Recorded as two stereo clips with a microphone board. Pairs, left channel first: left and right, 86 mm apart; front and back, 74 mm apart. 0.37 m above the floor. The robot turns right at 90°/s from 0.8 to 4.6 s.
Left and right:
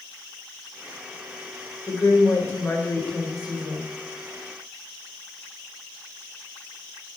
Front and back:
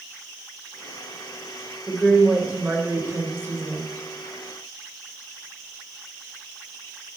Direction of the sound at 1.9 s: 55° left.